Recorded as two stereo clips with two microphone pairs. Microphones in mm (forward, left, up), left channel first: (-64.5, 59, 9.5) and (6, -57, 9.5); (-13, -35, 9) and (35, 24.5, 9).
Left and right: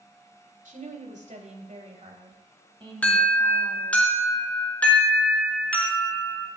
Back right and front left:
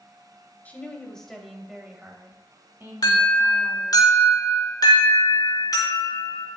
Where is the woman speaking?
60° right, 2.5 m; by 4.0 s 5° left, 4 m.